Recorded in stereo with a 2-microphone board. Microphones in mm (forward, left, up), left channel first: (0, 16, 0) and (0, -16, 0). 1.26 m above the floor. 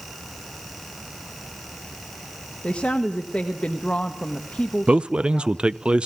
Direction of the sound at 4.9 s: 30° right (ahead or behind).